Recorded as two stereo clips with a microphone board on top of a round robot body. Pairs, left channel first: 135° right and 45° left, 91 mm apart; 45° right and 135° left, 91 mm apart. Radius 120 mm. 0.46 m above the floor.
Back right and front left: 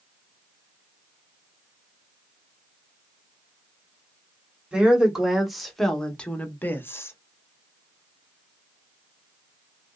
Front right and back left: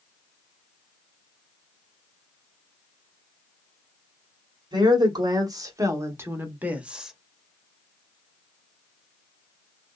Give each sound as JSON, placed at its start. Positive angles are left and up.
{"t": 4.7, "sound": "a woman speaking", "azimuth_deg": 120, "distance_m": 1.7}